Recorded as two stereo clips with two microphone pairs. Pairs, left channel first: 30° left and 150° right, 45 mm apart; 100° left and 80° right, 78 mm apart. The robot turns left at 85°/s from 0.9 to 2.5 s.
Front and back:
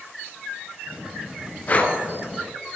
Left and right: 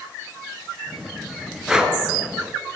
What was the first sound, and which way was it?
Breathing, straight ahead.